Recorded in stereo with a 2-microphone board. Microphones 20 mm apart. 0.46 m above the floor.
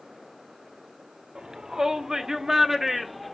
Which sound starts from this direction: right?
A shout, at 1.4 s.